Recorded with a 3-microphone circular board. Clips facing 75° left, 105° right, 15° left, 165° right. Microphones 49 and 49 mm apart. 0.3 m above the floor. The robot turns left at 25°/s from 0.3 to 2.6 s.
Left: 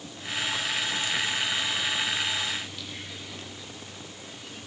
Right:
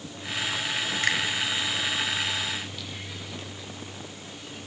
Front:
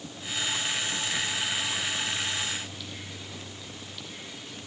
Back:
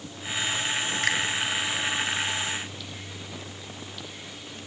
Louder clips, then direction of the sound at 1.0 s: Right 8 dB, back 6 dB; 135° right.